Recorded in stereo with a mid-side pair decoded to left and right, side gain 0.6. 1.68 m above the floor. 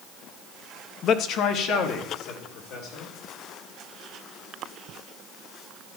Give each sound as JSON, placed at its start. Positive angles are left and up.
{"t": 1.0, "sound": "a man speaking", "azimuth_deg": 55, "distance_m": 0.9}